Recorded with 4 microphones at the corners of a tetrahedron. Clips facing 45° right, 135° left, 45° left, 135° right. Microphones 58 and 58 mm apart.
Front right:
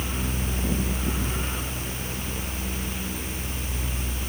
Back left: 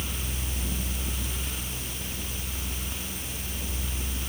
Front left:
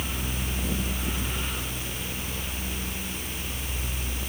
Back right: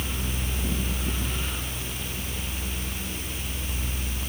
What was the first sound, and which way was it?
Only background noise.